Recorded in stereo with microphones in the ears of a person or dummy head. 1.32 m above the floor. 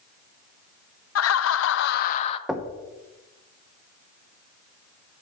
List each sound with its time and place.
1.1 s laughter: 80° left, 0.7 m; by 2.4 s 35° left (ahead or behind), 0.5 m
2.5 s knocking: 5° right (ahead or behind), 0.6 m